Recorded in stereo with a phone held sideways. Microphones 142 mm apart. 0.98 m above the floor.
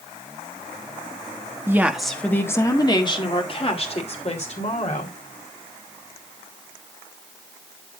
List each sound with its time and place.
1.7 s a woman speaking: 15° right (ahead or behind), 1.3 m; by 5.2 s 55° left (ahead or behind), 4 m